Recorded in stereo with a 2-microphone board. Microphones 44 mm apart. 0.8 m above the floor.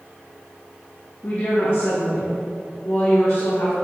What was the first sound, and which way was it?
A woman speaking, 55° left (ahead or behind).